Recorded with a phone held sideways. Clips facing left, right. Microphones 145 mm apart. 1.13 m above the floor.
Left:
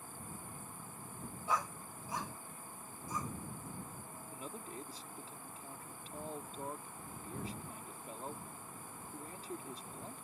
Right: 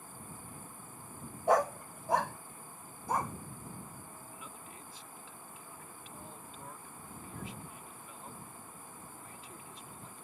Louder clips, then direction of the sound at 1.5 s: Right 11 dB; 65° right (ahead or behind).